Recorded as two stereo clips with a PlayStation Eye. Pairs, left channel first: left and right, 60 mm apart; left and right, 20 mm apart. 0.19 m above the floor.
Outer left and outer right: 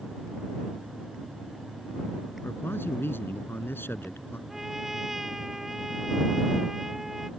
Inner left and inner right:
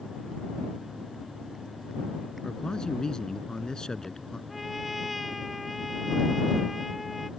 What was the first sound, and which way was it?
A man speaking, 40° left (ahead or behind).